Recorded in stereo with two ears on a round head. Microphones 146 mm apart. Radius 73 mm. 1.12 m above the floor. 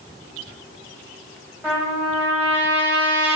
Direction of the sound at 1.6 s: 10° right (ahead or behind).